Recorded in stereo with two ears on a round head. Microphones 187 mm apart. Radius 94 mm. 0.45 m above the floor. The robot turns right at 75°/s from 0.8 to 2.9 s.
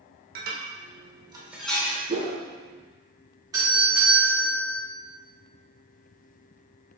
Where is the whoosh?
35° right (ahead or behind), 0.7 m; by 2.4 s 45° right (ahead or behind), 0.7 m.